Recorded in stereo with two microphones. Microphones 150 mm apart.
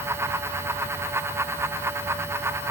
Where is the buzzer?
No buzzer in this recording.